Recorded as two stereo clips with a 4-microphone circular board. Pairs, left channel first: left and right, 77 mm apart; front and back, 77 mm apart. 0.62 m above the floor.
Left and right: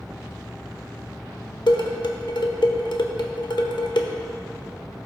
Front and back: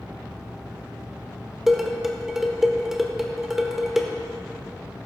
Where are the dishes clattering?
95° left, 1.1 m.